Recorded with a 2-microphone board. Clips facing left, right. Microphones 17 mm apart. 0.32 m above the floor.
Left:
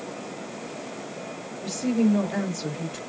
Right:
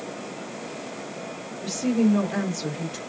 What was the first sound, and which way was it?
A woman speaking, 30° right (ahead or behind).